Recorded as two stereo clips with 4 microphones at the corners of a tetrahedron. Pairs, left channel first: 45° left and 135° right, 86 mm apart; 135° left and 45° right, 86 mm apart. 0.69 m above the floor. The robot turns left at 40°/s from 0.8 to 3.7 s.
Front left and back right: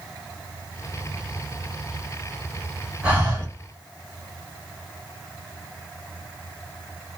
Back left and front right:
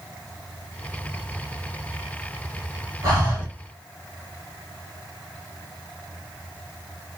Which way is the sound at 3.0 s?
65° right.